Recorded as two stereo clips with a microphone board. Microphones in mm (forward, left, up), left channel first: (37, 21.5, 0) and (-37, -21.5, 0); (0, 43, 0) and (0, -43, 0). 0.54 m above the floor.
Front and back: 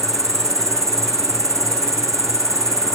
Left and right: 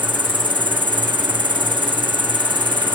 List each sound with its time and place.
0.0 s an insect: 100° right